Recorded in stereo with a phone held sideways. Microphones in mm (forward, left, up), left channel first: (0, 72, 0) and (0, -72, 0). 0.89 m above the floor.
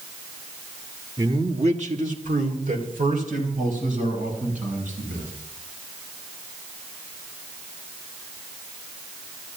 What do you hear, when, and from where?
1.2 s a man speaking: 30° right (ahead or behind), 1.5 m; by 5.3 s 70° right (ahead or behind), 6.5 m